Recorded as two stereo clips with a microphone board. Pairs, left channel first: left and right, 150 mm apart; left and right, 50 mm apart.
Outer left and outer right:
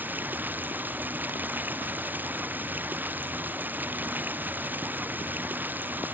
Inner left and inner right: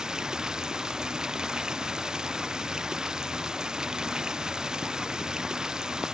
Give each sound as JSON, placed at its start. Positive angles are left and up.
{"t": 0.0, "sound": "running water", "side_deg": -10}